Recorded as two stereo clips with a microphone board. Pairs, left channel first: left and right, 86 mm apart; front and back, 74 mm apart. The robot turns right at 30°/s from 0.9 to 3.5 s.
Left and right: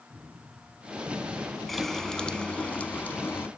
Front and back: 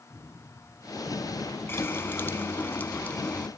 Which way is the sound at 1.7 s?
Straight ahead.